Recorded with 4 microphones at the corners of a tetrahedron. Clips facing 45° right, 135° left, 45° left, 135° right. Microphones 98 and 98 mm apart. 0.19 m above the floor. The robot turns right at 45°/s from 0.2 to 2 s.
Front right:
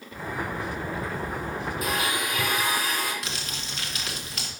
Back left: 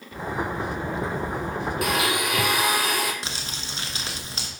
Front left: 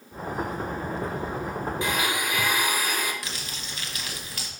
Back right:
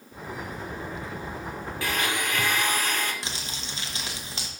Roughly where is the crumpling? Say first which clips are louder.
Back left 1 dB, back right 1 dB; behind.